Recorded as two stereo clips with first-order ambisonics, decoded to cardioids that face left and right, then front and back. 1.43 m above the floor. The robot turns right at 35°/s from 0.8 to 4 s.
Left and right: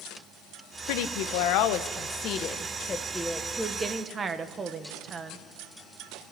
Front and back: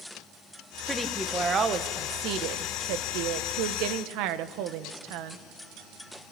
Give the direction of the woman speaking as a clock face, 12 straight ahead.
9 o'clock.